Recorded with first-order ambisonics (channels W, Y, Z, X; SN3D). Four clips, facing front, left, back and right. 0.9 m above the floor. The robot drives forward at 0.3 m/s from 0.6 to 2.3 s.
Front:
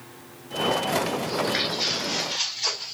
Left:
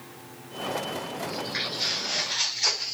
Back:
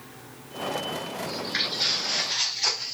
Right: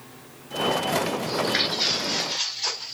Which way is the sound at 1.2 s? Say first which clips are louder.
Right 7 dB, front 3 dB; 80° right.